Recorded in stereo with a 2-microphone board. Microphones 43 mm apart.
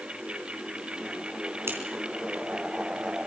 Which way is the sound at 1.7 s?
80° right.